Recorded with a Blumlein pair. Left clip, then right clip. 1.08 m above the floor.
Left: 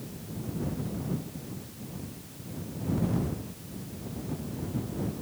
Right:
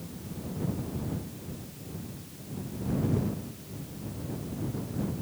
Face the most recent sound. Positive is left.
No sound to turn to.